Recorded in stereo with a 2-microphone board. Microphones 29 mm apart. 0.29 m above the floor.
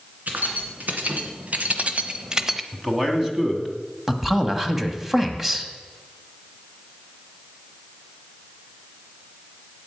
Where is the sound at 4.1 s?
5° right (ahead or behind), 1.4 m.